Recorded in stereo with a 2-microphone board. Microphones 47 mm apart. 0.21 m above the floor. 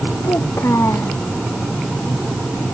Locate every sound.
0.2 s a child speaking: 80° left